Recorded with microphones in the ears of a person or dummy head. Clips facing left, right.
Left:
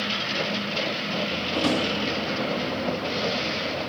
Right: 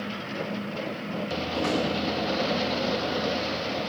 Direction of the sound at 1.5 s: 55° left (ahead or behind).